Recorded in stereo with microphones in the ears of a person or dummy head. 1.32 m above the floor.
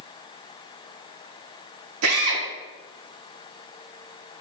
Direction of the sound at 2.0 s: 75° right (ahead or behind).